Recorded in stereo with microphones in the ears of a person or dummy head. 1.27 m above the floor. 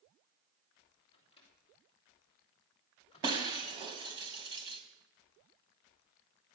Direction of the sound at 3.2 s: 25° right (ahead or behind).